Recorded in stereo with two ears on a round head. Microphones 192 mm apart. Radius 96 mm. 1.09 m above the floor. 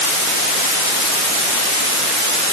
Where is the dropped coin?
I don't hear a dropped coin.